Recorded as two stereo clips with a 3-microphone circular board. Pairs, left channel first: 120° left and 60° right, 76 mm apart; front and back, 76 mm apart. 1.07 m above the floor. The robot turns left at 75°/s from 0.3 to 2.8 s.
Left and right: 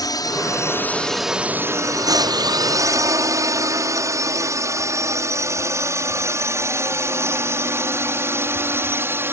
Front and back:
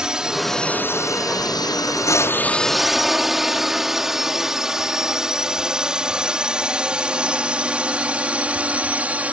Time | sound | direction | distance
0.0 | a drone | 100° left | ?